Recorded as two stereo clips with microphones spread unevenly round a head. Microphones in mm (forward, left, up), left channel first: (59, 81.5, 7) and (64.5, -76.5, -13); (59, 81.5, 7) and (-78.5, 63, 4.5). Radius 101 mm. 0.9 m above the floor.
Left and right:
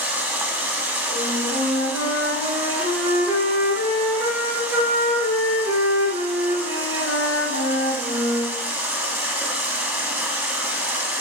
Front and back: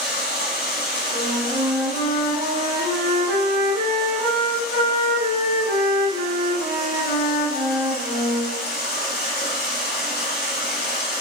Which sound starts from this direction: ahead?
Running water, at 0.0 s.